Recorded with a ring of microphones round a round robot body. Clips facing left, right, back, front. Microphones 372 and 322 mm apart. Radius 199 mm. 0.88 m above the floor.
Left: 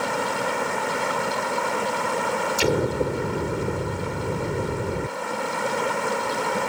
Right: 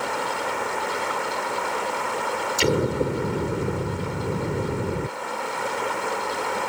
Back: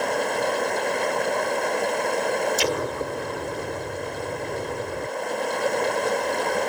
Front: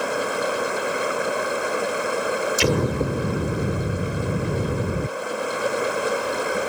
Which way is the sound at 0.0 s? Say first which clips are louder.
Left 2 dB, even; 85° left.